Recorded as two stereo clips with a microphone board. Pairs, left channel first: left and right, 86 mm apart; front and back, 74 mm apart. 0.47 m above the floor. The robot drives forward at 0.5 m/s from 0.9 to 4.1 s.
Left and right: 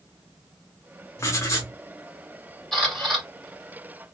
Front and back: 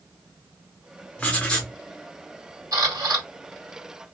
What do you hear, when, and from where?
1.2 s writing: 55° left, 1.0 m; by 1.7 s 80° left, 0.9 m
2.7 s a camera shutter: 175° left, 2 m